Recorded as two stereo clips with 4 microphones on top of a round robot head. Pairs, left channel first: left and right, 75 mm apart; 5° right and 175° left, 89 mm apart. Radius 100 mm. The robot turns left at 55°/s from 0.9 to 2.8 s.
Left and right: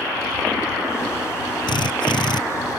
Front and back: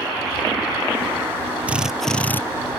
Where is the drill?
105° left; by 2.4 s 65° left.